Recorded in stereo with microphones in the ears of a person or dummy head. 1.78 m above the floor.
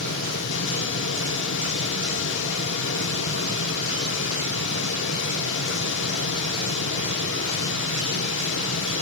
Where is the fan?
70° left (ahead or behind), 1.9 m.